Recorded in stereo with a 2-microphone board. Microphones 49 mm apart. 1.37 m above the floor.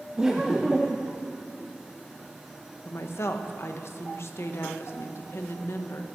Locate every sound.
0.2 s laughter: 10° right (ahead or behind), 0.6 m
2.9 s a woman speaking: 60° left (ahead or behind), 0.8 m